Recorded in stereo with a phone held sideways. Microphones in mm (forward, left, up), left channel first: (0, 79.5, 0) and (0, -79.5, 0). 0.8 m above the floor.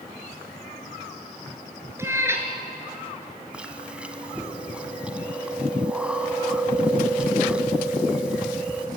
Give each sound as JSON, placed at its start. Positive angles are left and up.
{"t": 2.0, "sound": "a cat meowing", "side_deg": -15, "distance_m": 2.5}
{"t": 3.5, "sound": "chewing", "side_deg": -5, "distance_m": 1.6}